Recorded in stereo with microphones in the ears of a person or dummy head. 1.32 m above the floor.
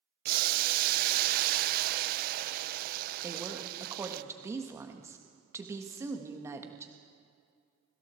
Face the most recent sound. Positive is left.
turn(degrees=-10)  # may be behind; listen again after turning